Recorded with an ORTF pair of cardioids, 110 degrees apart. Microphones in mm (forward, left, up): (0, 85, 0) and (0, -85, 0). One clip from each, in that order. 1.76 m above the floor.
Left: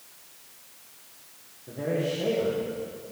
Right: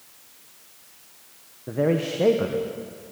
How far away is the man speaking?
About 1.3 m.